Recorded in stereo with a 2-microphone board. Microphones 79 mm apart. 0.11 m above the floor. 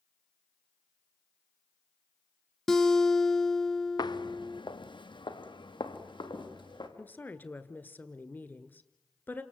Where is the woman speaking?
25° left (ahead or behind), 1.5 m.